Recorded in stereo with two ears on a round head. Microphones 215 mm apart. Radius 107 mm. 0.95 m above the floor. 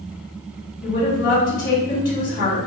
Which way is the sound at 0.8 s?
35° left (ahead or behind).